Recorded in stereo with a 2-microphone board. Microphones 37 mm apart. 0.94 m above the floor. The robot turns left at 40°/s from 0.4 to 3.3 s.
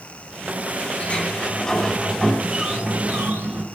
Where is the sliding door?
40° left, 5 m; by 3.6 s 55° right, 5 m.